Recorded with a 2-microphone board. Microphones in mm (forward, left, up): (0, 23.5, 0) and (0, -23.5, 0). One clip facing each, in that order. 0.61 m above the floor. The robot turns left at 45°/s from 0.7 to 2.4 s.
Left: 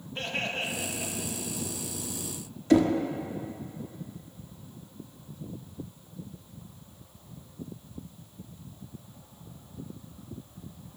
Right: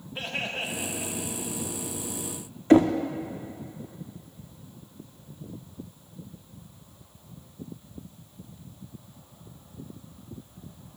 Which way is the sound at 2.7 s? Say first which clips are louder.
Right 4 dB; 35° right (ahead or behind).